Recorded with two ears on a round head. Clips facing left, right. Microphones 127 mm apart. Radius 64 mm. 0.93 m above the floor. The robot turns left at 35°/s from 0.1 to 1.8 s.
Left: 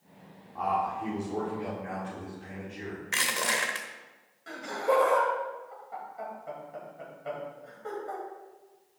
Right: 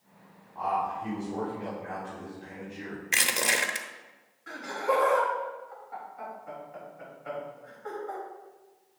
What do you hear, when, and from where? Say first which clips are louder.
0.6 s a man speaking: even; 85° left, 3 m; by 3.0 s 40° left, 3 m
3.1 s crushing: right 1 dB; 20° right (ahead or behind), 0.9 m
4.5 s laughter: left 1 dB; 35° left (ahead or behind), 4.5 m